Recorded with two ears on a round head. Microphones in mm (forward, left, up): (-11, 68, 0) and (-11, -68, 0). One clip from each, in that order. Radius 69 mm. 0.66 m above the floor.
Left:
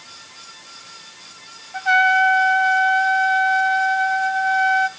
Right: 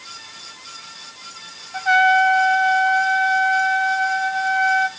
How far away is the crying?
I don't hear crying.